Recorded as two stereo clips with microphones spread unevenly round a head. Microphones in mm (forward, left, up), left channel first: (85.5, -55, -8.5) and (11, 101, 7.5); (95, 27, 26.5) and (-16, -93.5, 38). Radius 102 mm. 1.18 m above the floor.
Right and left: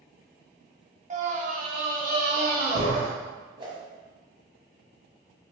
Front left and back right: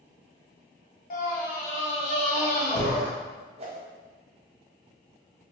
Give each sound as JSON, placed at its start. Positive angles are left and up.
{"t": 1.1, "sound": "a scream", "azimuth_deg": 70, "distance_m": 0.9}
{"t": 3.6, "sound": "a whoosh", "azimuth_deg": 180, "distance_m": 0.8}